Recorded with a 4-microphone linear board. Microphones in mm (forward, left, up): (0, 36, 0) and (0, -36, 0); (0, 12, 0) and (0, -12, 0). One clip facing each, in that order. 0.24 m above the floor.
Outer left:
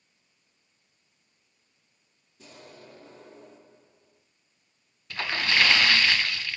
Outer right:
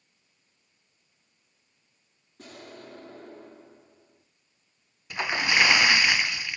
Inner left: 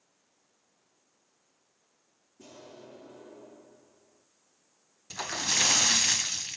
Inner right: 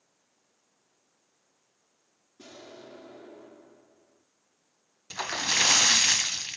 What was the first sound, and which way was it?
An explosion, 55° right (ahead or behind).